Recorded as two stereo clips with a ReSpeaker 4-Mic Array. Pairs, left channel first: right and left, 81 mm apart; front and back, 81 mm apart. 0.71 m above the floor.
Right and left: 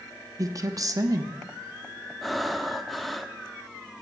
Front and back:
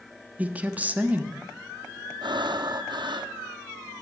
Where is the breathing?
Straight behind, 0.7 m.